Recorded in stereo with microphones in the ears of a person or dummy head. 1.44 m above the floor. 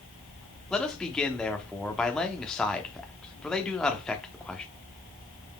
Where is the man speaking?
Centre (ahead or behind), 0.8 m.